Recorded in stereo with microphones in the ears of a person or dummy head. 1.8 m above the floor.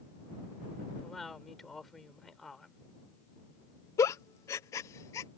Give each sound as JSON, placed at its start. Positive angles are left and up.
{"t": 1.0, "sound": "a woman speaking", "side_deg": 0}
{"t": 4.0, "sound": "a giggle", "side_deg": 20}